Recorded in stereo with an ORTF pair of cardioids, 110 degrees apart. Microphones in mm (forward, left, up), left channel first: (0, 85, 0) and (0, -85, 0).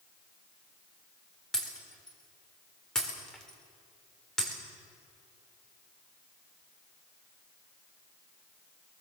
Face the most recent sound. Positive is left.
turn(degrees=5)